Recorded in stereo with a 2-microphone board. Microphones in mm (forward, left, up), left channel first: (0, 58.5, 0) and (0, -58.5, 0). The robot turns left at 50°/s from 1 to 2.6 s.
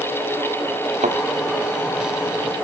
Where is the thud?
85° right; by 1.2 s 80° right.